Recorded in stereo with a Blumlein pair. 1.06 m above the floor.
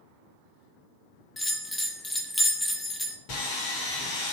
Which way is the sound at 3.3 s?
40° left.